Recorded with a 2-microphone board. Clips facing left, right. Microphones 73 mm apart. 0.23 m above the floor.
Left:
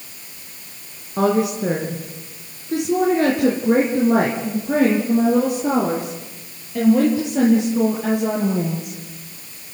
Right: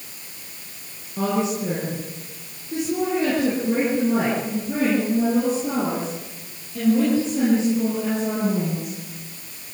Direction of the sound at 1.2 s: 60° left (ahead or behind).